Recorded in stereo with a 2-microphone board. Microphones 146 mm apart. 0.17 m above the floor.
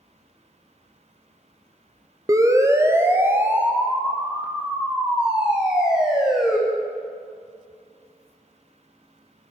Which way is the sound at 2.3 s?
25° right (ahead or behind).